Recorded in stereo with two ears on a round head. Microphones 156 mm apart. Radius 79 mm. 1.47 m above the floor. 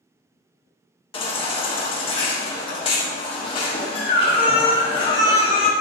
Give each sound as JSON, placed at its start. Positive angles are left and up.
{"t": 1.1, "sound": "a baby crying", "side_deg": 30, "distance_m": 1.5}